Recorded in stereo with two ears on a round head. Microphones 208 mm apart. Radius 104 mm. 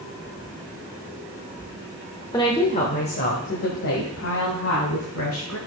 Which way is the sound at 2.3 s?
15° left (ahead or behind).